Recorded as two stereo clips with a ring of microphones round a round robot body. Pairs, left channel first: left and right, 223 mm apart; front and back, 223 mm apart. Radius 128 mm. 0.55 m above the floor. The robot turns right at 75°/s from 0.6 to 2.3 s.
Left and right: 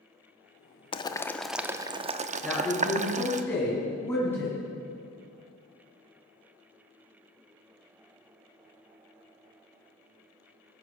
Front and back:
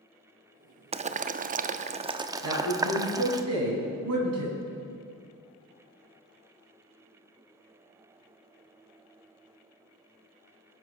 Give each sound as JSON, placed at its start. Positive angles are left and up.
{"t": 0.9, "sound": "boiling", "azimuth_deg": 140, "distance_m": 0.6}
{"t": 2.4, "sound": "a man speaking", "azimuth_deg": 170, "distance_m": 4.0}